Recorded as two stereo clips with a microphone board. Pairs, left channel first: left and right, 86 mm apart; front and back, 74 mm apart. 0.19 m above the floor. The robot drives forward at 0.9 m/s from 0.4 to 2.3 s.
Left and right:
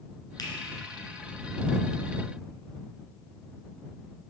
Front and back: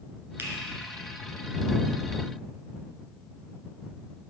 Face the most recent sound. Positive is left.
turn(degrees=155)